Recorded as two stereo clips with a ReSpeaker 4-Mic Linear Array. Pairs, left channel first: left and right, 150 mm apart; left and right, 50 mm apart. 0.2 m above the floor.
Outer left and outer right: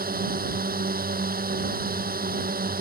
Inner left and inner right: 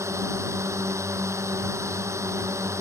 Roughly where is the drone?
Right.